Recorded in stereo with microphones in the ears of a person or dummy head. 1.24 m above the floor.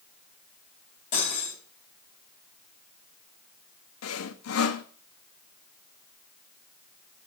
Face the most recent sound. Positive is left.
turn(degrees=80)